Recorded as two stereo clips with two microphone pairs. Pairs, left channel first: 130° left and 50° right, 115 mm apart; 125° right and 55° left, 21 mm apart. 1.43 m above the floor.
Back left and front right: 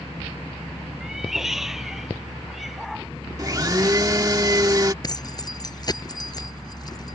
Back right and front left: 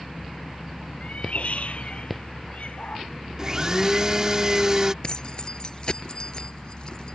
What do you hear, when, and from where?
1.0 s a cat meowing: 135° right
3.4 s a blender: straight ahead
5.0 s keys jangling: 175° right